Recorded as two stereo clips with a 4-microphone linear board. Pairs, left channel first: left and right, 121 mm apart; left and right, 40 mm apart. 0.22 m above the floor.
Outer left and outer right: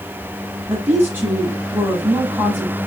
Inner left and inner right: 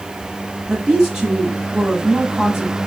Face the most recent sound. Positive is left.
turn(degrees=-15)  # may be behind; listen again after turning